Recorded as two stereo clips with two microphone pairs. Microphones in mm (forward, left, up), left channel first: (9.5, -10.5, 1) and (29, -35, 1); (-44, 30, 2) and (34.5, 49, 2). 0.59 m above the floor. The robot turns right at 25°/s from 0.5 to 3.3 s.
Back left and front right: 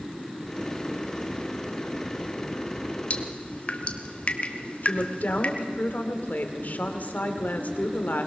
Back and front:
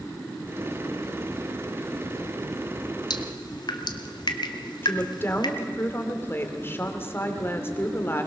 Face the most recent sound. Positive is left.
turn(degrees=140)